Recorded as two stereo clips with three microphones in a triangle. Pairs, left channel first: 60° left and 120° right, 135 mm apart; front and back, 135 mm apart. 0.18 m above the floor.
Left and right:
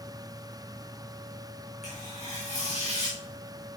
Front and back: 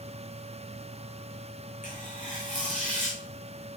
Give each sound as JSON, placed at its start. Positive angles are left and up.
{"t": 1.8, "sound": "tearing paper", "azimuth_deg": 25, "distance_m": 5.5}